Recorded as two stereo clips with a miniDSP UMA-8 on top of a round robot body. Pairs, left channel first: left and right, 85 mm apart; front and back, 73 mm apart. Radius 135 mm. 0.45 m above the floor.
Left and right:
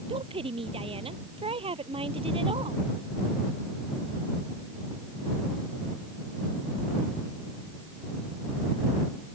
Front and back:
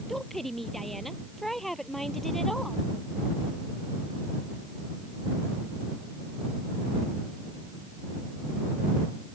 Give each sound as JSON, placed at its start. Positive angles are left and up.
{"t": 0.1, "sound": "a woman speaking", "azimuth_deg": -85}